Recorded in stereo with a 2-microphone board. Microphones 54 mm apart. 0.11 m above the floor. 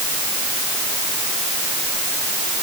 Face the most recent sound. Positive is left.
No sound to turn to.